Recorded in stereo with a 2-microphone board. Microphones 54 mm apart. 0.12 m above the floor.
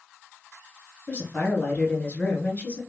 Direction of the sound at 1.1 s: 30° left (ahead or behind).